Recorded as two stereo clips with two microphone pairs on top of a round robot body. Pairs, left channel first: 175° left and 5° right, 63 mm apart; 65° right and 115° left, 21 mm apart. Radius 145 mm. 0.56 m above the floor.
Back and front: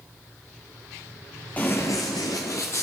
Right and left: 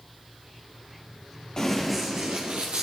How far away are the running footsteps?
About 0.9 m.